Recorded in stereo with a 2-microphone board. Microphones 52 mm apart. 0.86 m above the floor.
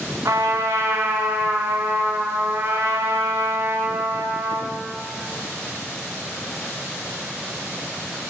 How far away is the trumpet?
About 1.9 m.